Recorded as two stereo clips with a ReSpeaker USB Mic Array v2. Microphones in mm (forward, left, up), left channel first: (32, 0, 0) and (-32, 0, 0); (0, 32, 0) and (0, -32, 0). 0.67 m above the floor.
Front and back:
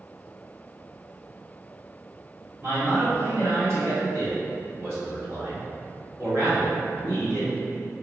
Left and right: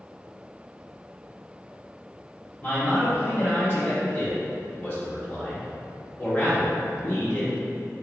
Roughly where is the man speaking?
Behind left.